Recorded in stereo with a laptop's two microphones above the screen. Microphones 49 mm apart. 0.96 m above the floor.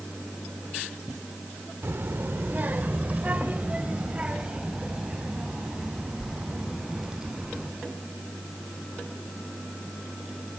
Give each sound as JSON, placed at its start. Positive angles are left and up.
{"t": 1.8, "sound": "a child speaking", "side_deg": -55, "distance_m": 1.5}